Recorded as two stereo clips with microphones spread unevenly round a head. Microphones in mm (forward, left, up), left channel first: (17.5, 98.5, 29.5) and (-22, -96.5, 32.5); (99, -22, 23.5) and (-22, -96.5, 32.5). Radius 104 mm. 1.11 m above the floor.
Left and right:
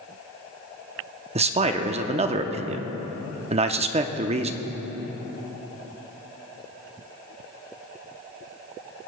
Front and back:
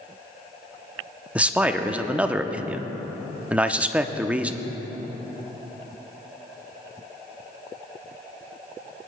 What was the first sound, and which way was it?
A man speaking, 65° right.